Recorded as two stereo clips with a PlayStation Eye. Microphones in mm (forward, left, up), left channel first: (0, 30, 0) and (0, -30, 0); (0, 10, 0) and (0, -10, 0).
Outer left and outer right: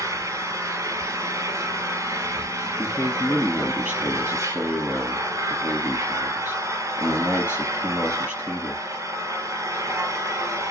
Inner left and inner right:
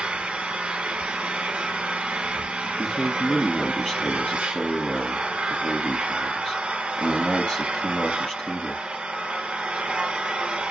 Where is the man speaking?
45° left (ahead or behind), 2 m.